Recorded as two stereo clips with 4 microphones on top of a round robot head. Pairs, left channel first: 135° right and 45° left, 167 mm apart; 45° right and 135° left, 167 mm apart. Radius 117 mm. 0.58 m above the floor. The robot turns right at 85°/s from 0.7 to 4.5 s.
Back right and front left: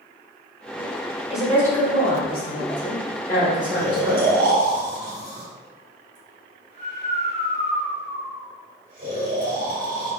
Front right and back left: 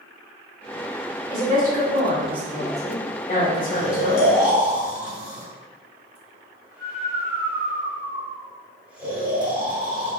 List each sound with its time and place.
1.3 s a woman speaking: 125° left, 1.9 m; by 4.3 s 15° left, 1.9 m
3.7 s snoring: 15° right, 2.0 m; by 10.1 s 55° left, 2.0 m